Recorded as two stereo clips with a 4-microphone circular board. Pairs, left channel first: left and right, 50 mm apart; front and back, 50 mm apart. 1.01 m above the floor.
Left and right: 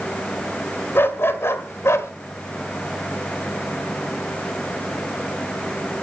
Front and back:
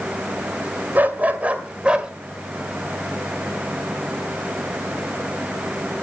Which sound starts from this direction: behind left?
A dog barking, at 0.9 s.